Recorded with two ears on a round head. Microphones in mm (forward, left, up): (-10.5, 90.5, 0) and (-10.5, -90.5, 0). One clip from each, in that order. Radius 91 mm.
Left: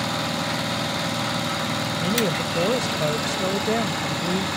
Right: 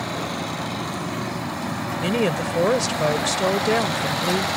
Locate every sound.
2.0 s a woman speaking: 30° right (ahead or behind)